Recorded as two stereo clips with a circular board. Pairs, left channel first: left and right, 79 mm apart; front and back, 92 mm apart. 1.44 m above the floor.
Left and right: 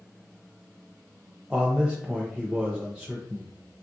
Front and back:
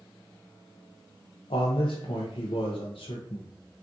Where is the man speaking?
10° right, 0.6 m.